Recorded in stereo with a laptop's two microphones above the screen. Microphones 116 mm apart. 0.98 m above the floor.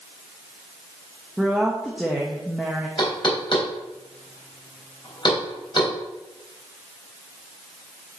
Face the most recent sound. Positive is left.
turn(degrees=45)  # may be behind; listen again after turning